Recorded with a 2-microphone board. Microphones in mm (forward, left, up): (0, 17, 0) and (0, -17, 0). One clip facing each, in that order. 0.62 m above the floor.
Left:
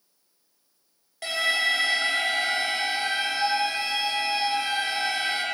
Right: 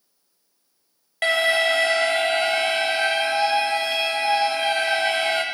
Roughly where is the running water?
No running water in this recording.